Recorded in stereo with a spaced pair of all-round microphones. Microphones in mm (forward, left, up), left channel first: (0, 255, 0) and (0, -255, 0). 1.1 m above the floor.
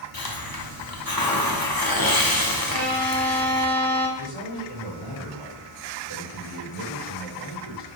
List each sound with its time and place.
0.1 s a hiss: 45° left (ahead or behind), 0.9 m
2.7 s a violin: 80° right, 3.5 m
4.2 s a man speaking: 80° left, 3.5 m